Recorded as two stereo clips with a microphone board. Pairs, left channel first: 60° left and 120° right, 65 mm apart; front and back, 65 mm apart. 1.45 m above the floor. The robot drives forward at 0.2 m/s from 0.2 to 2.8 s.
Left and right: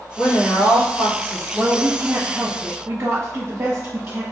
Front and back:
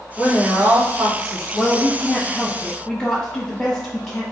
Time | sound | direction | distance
0.2 | a woman speaking | 105° left | 1.5 m
1.5 | a woman speaking | 55° right | 0.7 m